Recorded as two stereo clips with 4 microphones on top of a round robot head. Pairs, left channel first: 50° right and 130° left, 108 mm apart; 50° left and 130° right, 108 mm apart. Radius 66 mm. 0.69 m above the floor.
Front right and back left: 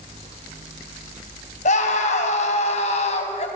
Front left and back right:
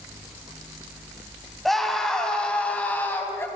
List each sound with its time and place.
1.6 s a scream: 40° right, 4.5 m; by 3.5 s 20° right, 4 m